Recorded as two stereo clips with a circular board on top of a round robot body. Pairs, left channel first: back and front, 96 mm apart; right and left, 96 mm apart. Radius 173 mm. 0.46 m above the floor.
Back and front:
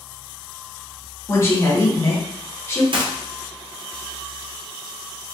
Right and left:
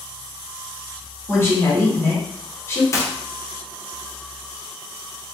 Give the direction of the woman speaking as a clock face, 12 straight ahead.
4 o'clock.